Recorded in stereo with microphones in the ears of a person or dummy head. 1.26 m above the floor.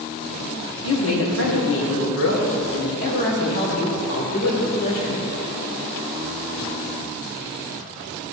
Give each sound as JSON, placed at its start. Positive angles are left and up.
{"t": 0.8, "sound": "a woman speaking", "side_deg": 85, "distance_m": 2.0}